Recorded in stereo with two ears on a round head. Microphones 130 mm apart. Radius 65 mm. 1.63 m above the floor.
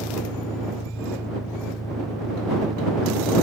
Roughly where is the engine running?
Left.